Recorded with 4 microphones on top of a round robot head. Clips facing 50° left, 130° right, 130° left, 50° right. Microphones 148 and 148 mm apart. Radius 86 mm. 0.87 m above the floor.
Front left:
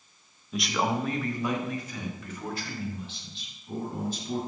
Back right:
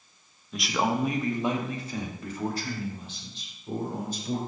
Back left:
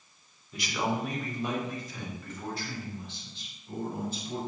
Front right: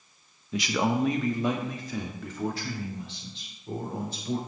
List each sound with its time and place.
0.5 s a man speaking: 35° right, 1.0 m; by 4.4 s 80° right, 3.5 m